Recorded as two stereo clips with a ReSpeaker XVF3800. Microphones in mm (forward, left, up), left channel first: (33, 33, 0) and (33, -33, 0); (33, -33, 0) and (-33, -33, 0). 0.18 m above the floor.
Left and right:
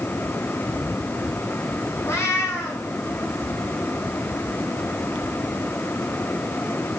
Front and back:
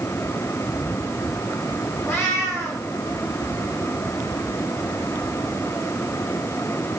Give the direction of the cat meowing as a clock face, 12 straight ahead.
11 o'clock.